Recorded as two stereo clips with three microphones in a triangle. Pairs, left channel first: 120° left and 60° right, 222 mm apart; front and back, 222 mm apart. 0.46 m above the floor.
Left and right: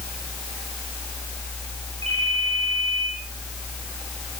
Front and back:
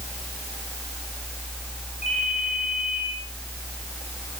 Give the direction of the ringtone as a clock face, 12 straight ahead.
2 o'clock.